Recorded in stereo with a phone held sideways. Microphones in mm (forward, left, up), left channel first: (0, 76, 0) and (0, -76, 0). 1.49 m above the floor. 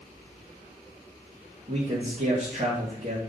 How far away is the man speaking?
About 1.6 m.